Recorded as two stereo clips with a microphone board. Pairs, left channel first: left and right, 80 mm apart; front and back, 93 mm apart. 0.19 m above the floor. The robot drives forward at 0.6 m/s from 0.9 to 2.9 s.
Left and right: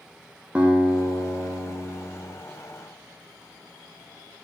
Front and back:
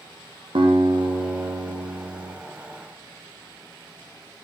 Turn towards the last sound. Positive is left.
turn(degrees=-170)